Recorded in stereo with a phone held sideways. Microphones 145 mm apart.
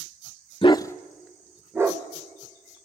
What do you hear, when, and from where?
0.6 s a dog barking: 40° left (ahead or behind), 0.5 m; by 2.8 s 25° right (ahead or behind), 2 m